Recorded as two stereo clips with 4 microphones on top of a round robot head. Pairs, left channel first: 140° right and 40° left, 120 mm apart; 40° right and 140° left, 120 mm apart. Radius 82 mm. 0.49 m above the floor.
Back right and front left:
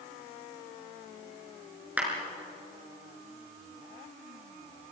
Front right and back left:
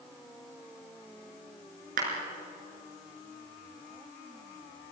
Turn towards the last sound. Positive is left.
turn(degrees=120)